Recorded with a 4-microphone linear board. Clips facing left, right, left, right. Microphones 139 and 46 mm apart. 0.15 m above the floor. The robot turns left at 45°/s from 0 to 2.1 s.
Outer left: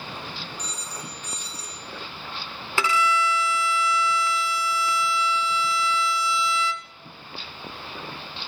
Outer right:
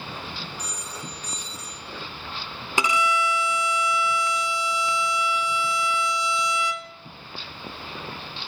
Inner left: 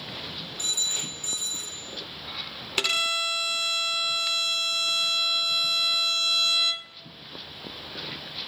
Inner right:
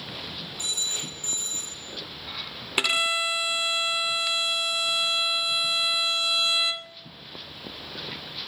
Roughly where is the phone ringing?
Ahead.